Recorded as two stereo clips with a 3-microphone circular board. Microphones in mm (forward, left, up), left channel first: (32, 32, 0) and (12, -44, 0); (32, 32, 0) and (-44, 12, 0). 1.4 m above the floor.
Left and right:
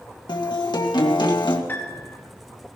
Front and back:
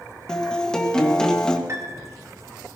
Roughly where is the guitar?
Left.